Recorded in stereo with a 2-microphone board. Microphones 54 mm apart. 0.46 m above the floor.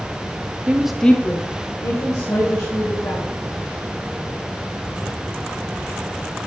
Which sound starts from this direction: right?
A woman speaking, at 0.7 s.